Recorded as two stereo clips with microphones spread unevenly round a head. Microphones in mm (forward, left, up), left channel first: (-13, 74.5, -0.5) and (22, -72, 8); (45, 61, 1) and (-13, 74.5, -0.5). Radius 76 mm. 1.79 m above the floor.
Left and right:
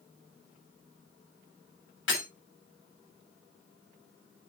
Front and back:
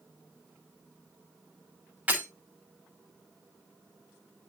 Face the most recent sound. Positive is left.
turn(degrees=105)